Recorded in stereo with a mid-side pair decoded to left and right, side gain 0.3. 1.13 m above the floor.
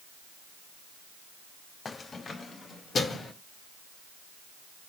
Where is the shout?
I don't hear a shout.